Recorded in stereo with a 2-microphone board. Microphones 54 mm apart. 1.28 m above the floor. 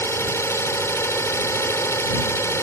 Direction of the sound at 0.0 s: 60° left (ahead or behind).